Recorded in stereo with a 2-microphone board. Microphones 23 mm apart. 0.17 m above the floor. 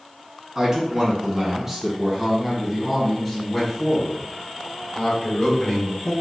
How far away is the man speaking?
About 1.5 m.